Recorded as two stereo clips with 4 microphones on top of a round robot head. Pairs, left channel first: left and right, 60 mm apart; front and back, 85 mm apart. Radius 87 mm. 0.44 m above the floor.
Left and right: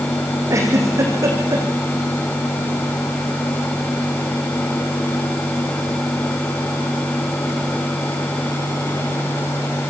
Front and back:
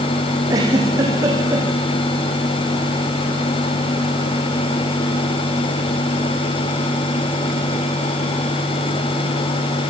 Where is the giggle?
125° right, 8 m.